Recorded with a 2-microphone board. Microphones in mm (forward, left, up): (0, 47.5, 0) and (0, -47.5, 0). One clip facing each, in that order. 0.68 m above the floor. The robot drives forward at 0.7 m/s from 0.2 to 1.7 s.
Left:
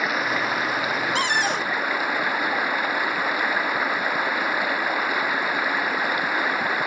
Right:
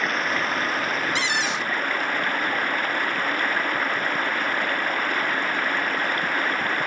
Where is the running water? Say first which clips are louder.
Left 1 dB; 5° left (ahead or behind); by 6.9 s 10° left (ahead or behind).